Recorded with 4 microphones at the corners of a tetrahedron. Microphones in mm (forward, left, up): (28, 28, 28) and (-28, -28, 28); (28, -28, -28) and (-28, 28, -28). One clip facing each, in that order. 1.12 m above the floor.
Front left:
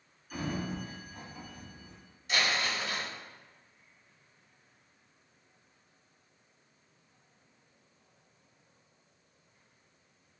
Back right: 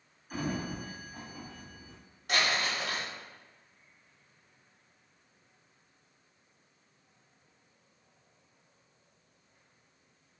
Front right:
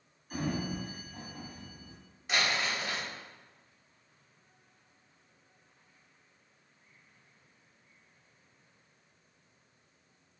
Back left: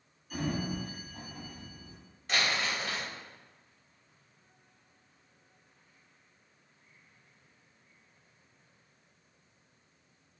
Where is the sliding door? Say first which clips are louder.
Back right 1 dB, even; 90° right, 1.8 m.